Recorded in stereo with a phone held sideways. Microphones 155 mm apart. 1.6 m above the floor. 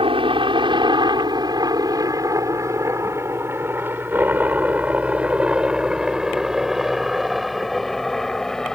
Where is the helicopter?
35° right (ahead or behind); by 8.8 s 5° left (ahead or behind).